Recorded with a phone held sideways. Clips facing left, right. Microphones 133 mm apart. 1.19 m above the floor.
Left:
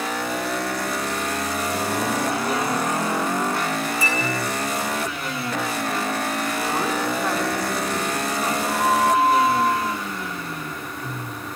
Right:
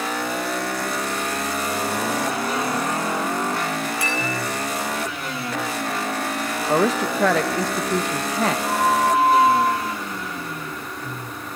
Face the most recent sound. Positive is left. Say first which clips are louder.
# left 2 dB
turn(degrees=-65)  # may be behind; listen again after turning